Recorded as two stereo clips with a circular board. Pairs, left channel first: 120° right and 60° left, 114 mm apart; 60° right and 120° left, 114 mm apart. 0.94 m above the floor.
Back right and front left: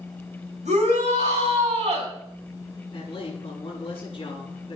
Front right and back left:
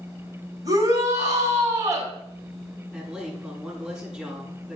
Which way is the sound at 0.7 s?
60° left.